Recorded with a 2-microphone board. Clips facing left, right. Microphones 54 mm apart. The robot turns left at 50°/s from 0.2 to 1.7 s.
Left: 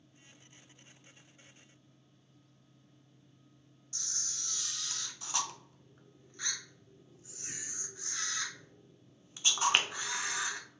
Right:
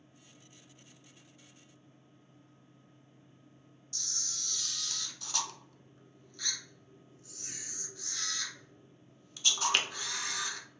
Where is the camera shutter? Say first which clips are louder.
Right 1 dB; 20° left (ahead or behind), 0.6 m.